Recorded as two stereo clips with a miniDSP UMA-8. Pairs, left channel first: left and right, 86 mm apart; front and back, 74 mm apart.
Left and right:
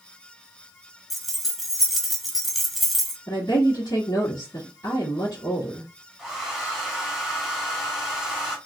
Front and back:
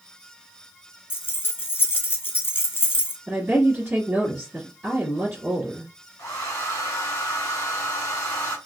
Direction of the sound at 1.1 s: 5° right.